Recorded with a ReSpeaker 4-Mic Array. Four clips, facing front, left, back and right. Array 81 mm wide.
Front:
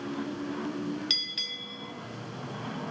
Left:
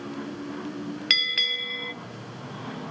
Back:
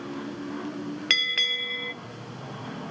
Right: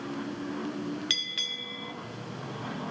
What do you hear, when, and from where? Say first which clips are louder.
1.1 s a bell: left 8 dB, back 11 dB; 160° left, 0.6 m